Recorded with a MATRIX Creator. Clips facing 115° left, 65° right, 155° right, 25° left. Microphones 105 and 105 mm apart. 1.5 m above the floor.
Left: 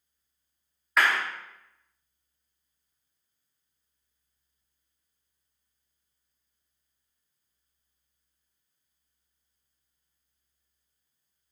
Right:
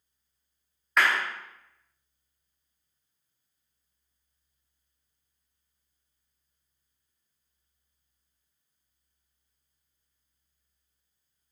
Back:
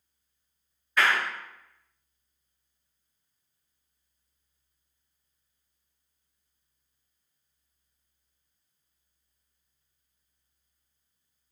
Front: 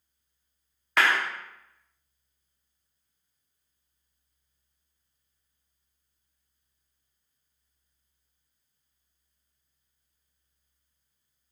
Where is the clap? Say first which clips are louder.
Even, front 1 dB; 25° left, 0.8 m.